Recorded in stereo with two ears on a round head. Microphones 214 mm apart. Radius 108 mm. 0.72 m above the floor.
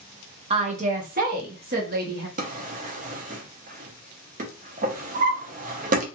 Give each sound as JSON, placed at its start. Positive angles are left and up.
{"t": 0.5, "sound": "a woman speaking", "side_deg": -25, "distance_m": 0.6}
{"t": 2.4, "sound": "a drawer", "side_deg": -35, "distance_m": 0.5}